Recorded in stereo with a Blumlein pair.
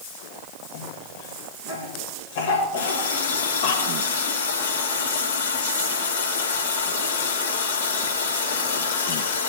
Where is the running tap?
65° left, 3.5 m.